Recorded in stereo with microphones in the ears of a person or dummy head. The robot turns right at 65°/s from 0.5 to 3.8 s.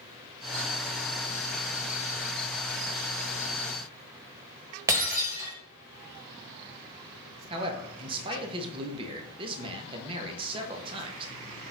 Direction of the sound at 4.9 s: 15° right (ahead or behind).